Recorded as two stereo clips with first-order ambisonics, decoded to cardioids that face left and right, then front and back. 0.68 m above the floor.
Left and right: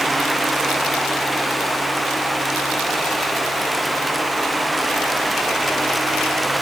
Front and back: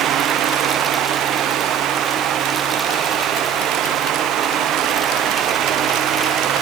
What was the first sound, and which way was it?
Only background noise.